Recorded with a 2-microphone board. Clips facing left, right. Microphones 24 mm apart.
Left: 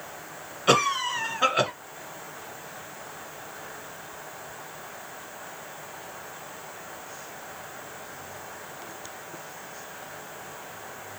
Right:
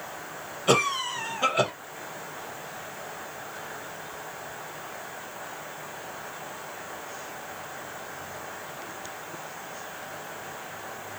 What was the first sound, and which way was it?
A cough, 35° left (ahead or behind).